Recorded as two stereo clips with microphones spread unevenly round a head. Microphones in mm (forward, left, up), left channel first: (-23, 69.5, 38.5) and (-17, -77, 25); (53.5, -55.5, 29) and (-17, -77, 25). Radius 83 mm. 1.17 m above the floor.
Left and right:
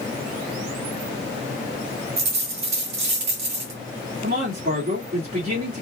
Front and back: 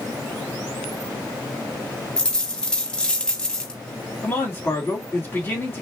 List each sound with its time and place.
2.2 s a dropped coin: 55° right, 1.7 m
4.2 s a man speaking: 50° right, 2.5 m